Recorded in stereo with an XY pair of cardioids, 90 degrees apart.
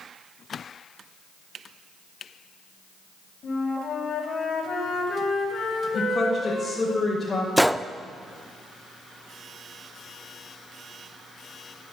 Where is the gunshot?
Straight ahead, 0.6 m.